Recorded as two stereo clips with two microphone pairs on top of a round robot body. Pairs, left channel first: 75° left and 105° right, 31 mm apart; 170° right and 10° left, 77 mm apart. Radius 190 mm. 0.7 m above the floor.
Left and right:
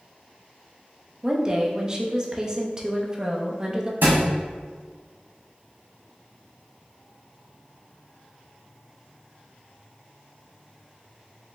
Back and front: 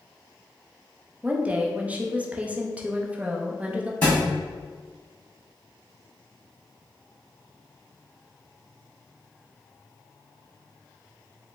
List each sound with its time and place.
1.2 s a woman speaking: 60° right, 0.9 m
4.0 s a thud: 90° right, 1.4 m